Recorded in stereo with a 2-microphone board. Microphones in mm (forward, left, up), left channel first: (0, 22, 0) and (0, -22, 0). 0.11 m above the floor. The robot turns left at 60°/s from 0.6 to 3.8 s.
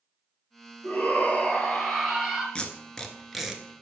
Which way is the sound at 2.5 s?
25° left (ahead or behind).